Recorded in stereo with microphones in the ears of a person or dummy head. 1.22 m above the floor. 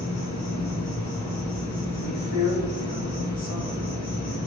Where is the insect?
50° left (ahead or behind), 3 m.